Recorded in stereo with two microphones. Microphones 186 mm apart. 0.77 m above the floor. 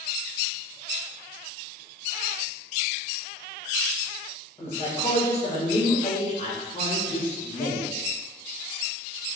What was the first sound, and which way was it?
A man speaking, 30° left (ahead or behind).